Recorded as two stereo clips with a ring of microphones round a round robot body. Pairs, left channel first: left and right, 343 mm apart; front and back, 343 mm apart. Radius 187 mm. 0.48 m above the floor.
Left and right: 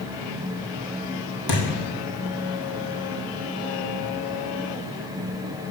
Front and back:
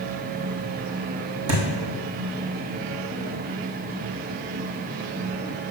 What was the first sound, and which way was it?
A thud, 125° left.